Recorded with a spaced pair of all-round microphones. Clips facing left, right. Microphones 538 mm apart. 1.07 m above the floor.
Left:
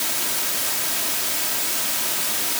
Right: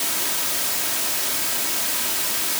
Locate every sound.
Only background noise.